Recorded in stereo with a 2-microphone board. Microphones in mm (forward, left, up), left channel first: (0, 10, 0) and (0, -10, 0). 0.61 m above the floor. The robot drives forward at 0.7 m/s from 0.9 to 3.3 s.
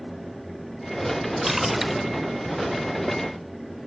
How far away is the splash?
About 1.3 m.